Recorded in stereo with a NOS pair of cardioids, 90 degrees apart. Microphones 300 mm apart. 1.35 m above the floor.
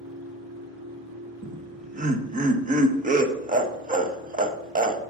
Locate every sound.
0.0 s a machine running: 65° right, 4 m
1.4 s laughter: 25° right, 1.3 m